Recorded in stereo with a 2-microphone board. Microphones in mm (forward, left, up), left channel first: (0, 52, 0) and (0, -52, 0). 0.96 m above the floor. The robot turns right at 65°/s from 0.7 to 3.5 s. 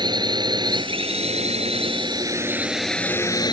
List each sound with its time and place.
0.0 s a drone: 45° right (ahead or behind); by 3.5 s 45° left (ahead or behind)